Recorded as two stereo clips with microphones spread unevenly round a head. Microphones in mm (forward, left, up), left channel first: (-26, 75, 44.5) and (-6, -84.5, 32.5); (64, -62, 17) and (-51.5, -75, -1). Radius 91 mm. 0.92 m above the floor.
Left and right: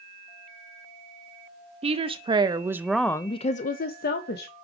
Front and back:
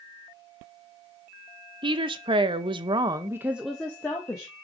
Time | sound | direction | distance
1.8 | a woman speaking | 130° right | 1.1 m